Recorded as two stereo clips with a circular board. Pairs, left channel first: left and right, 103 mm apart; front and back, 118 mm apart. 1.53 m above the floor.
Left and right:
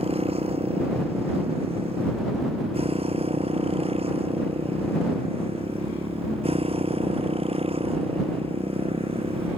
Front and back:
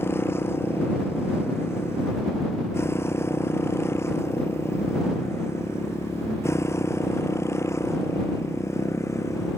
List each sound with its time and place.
0.0 s a motorcycle: 70° right; by 9.6 s 65° right